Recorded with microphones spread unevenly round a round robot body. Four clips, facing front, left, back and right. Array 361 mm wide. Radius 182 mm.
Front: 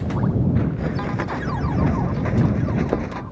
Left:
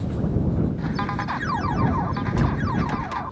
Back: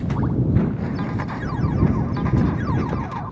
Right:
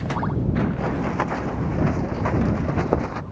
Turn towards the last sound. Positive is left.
turn(degrees=-30)